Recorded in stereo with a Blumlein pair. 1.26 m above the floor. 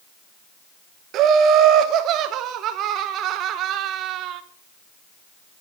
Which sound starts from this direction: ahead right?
Laughter, at 1.1 s.